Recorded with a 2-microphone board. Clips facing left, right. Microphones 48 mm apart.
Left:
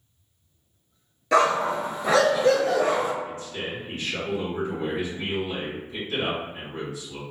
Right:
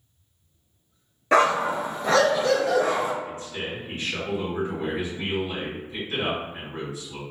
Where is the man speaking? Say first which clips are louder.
Even; 20° right (ahead or behind), 1.6 m.